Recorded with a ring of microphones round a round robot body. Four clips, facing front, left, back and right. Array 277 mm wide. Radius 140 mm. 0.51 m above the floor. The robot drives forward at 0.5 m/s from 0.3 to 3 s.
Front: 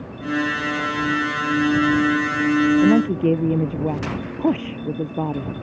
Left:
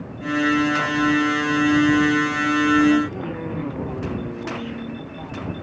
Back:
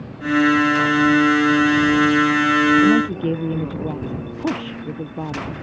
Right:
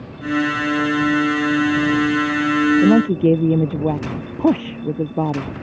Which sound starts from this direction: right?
A woman speaking, at 2.8 s.